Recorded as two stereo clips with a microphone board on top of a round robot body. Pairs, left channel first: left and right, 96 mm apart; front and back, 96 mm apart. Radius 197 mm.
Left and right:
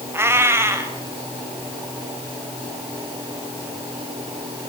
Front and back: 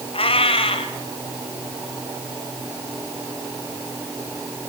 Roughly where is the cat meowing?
Ahead right.